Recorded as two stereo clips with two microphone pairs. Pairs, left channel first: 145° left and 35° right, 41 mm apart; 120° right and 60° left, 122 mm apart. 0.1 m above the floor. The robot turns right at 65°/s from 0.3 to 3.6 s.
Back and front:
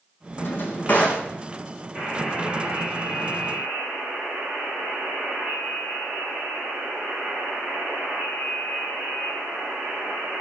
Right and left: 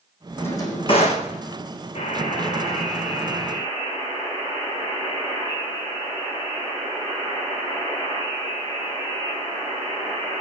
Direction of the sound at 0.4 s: 165° left.